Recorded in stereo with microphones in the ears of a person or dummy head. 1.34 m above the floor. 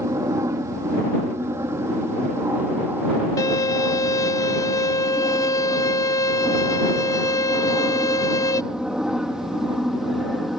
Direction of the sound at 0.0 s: 20° right (ahead or behind).